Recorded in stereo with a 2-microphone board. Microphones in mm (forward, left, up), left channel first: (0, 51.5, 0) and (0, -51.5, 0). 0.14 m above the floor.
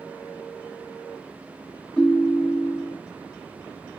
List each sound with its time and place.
2.0 s a ringtone: 5° left (ahead or behind), 0.6 m